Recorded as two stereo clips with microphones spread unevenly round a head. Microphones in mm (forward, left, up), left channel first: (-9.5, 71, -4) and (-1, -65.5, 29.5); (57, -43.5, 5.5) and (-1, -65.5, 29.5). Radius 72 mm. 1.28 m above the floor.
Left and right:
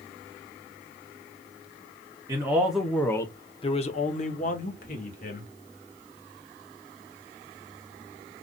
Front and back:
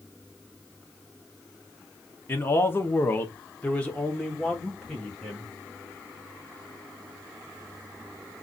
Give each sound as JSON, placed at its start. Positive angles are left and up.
{"t": 2.3, "sound": "a man speaking", "azimuth_deg": -10, "distance_m": 0.9}